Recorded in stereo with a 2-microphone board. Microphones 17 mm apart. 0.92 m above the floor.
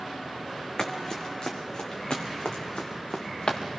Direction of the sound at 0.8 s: 40° left (ahead or behind).